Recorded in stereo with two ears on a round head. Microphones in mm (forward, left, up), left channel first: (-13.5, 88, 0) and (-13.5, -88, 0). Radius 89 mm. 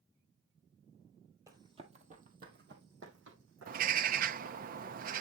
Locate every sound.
1.5 s running footsteps: 15° right (ahead or behind), 1.7 m; by 4.6 s 75° right (ahead or behind), 4.5 m
3.7 s a bird: 45° right (ahead or behind), 0.6 m